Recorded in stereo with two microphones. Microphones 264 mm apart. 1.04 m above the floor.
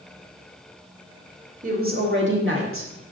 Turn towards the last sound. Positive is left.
turn(degrees=-55)  # may be behind; listen again after turning